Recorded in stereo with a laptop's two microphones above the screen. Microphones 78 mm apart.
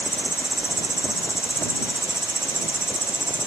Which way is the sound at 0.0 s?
70° right (ahead or behind).